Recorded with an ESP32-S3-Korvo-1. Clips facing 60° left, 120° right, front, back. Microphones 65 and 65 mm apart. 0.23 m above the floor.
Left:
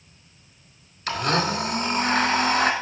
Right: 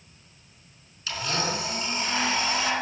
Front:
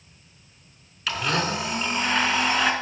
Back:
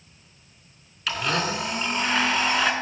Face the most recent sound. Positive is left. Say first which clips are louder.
# left 6 dB, even
turn(degrees=85)